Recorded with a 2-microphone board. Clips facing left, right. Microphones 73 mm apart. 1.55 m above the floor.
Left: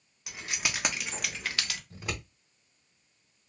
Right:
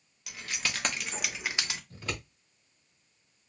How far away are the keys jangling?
About 1.1 m.